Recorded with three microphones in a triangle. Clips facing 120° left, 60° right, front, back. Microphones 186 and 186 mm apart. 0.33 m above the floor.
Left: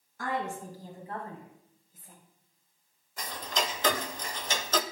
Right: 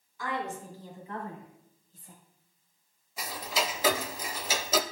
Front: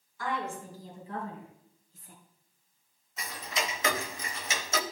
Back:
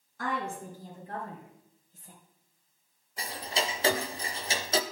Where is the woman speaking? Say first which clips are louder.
Left 1 dB, back 1 dB; 155° left, 3 m; by 2.1 s 150° right, 1.7 m.